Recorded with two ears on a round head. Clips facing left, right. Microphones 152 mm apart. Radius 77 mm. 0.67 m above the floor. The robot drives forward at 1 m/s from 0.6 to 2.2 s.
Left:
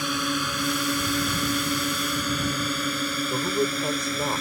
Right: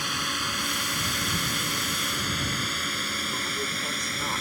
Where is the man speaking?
25° left (ahead or behind).